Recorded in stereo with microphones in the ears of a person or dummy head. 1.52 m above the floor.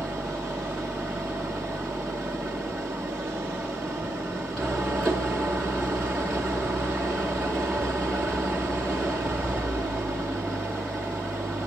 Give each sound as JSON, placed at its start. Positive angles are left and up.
{"t": 0.0, "sound": "an engine running", "side_deg": 0, "distance_m": 0.8}